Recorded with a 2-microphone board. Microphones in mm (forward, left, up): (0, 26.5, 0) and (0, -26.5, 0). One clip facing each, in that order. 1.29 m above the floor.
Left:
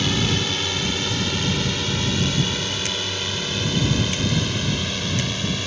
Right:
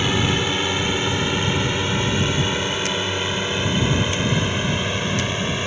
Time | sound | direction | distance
0.0 | a drone | 20° right (ahead or behind) | ?